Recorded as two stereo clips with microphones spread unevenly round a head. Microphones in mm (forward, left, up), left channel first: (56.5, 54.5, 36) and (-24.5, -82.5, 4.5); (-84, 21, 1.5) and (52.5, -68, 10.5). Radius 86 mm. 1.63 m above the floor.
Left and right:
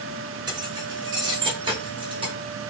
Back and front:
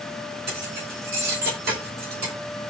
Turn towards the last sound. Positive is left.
turn(degrees=-60)